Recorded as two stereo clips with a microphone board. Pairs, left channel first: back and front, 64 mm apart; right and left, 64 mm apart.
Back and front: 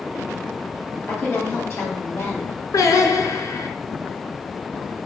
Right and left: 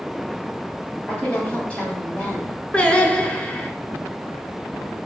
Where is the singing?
160° right, 0.5 m.